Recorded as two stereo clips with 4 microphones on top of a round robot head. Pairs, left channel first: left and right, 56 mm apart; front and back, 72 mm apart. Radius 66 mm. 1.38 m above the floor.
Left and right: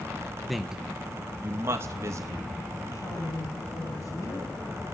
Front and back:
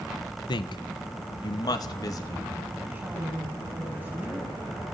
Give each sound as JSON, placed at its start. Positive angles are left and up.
{"t": 0.5, "sound": "a man speaking", "azimuth_deg": 0, "distance_m": 1.6}
{"t": 2.9, "sound": "a woman speaking", "azimuth_deg": 115, "distance_m": 8.5}